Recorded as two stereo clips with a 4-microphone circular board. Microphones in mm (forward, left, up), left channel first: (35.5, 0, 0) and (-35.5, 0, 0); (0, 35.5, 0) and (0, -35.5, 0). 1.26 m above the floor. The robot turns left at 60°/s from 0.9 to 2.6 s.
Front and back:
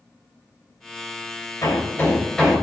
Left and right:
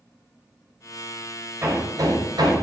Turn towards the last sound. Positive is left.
turn(degrees=-95)